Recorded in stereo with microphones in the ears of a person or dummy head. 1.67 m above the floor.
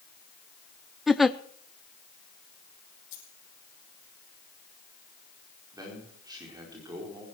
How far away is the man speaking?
About 4.5 m.